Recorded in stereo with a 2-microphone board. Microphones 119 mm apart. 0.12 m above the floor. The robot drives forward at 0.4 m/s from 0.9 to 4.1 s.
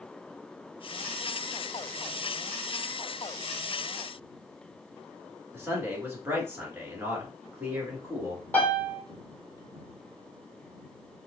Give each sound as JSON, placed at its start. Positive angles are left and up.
{"t": 5.5, "sound": "a man speaking", "side_deg": -20, "distance_m": 1.5}
{"t": 8.5, "sound": "a piano", "side_deg": 10, "distance_m": 1.7}